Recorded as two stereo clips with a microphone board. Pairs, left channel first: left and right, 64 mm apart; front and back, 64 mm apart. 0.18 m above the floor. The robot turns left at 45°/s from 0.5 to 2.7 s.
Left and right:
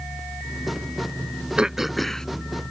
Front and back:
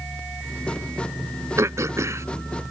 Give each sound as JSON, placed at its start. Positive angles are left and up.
{"t": 1.6, "sound": "throat clearing", "azimuth_deg": -160}